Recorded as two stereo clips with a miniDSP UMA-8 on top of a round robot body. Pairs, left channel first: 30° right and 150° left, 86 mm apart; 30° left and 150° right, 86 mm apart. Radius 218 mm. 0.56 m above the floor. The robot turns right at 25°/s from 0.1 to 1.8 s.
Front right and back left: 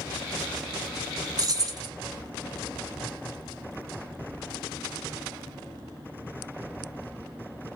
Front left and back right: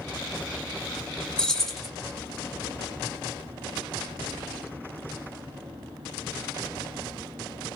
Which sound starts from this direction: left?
Keys jangling, at 1.4 s.